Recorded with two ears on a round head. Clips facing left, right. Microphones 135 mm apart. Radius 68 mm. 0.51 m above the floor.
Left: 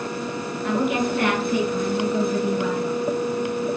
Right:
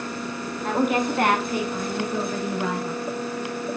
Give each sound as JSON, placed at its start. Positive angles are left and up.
{"t": 0.6, "sound": "a woman speaking", "side_deg": -35, "distance_m": 4.5}